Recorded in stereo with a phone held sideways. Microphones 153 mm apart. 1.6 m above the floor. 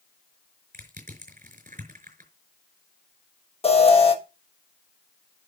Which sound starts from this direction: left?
An alarm, at 3.6 s.